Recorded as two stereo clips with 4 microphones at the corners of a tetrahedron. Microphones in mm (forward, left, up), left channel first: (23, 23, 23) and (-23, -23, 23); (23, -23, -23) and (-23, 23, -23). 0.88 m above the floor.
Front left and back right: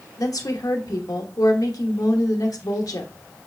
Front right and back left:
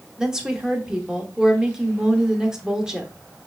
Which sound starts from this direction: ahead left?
A woman speaking, at 0.2 s.